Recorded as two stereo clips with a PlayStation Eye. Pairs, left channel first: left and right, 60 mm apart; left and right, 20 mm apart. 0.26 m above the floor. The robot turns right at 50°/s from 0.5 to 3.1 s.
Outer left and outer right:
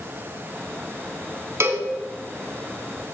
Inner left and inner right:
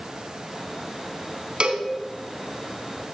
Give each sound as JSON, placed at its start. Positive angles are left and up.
{"t": 1.6, "sound": "a cowbell", "side_deg": -50, "distance_m": 1.1}